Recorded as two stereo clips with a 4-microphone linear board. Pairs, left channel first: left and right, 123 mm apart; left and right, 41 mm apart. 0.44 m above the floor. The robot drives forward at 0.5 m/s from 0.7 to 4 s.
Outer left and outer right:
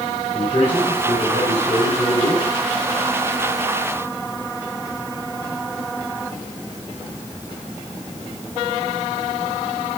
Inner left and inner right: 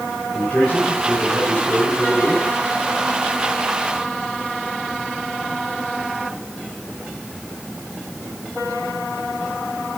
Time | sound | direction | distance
0.3 | a man speaking | 25° left (ahead or behind) | 7.5 m